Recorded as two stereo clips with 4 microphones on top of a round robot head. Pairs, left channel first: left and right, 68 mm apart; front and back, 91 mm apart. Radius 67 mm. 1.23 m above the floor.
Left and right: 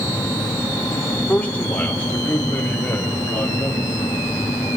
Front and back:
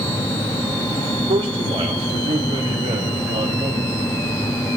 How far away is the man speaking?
About 3.5 m.